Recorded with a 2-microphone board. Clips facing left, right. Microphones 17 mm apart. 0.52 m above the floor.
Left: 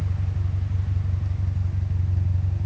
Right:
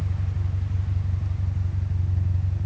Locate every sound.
0.0 s an engine running: 5° left (ahead or behind), 0.8 m